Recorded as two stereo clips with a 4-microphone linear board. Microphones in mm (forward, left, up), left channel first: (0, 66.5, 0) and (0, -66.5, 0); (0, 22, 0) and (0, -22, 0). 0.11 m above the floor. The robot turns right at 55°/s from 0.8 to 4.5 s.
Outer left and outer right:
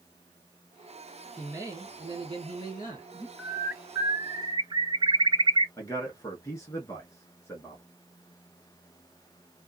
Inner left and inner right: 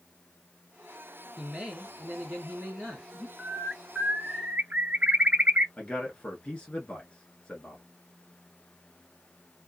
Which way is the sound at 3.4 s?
175° left.